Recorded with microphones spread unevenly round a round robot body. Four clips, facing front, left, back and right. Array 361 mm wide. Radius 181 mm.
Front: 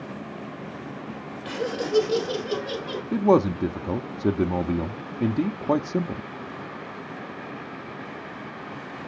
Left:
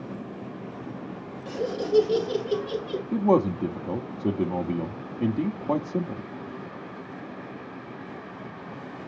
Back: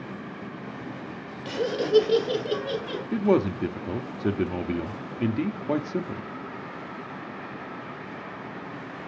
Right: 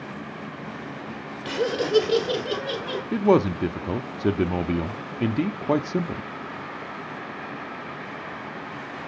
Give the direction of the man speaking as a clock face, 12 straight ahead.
3 o'clock.